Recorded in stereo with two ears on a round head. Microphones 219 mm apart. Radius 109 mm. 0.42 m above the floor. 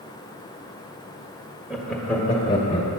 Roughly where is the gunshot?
I don't hear a gunshot.